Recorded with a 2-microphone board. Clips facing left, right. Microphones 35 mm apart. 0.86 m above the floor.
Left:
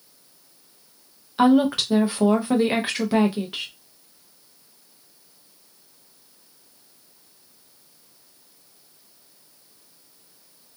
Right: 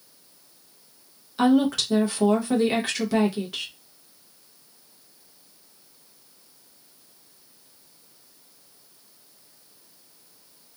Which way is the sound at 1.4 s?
20° left (ahead or behind).